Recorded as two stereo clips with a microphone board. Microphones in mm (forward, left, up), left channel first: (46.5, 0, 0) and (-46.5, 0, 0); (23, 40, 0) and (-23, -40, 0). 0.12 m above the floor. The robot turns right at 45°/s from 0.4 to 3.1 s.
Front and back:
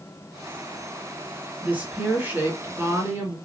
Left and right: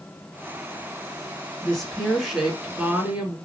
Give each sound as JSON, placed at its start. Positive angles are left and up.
{"t": 1.6, "sound": "a woman speaking", "azimuth_deg": 130, "distance_m": 1.8}